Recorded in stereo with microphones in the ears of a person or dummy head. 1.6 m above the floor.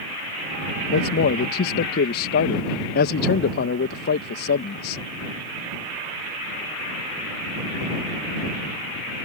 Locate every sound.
0.9 s a man speaking: 55° left (ahead or behind)